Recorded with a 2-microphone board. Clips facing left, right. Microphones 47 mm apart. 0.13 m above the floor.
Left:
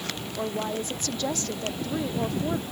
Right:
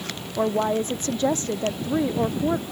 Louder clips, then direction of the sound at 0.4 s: Right 8 dB; 30° right (ahead or behind).